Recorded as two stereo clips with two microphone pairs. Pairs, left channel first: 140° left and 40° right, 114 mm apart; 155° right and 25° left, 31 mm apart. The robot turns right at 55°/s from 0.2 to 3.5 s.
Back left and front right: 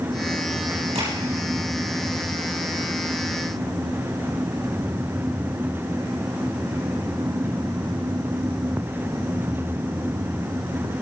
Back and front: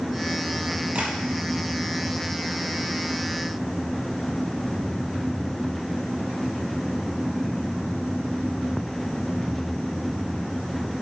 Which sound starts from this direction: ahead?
Tapping, at 0.9 s.